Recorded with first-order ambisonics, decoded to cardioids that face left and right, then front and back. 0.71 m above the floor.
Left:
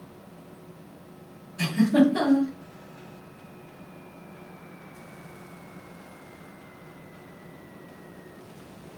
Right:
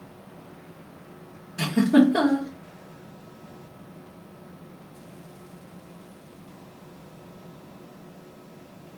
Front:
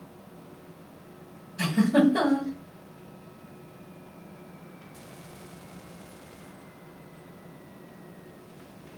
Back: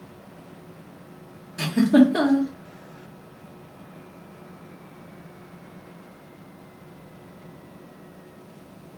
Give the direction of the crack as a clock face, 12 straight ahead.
No crack in this recording.